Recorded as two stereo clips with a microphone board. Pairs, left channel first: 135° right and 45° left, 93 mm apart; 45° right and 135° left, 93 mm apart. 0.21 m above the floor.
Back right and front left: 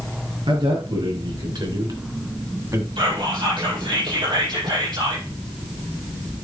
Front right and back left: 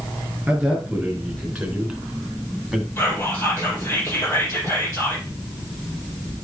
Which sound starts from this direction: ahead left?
A man speaking, at 0.5 s.